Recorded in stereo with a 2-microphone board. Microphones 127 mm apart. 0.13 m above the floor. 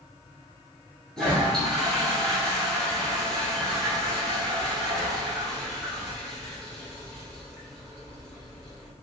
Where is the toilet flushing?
5° left (ahead or behind), 1.4 m.